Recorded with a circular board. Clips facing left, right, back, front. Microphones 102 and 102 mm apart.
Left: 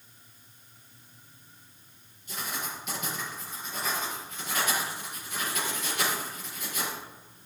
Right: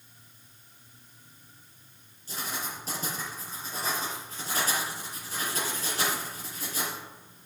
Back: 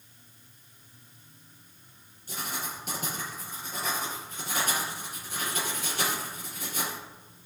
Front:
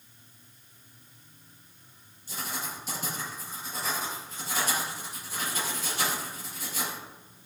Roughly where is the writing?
Behind right.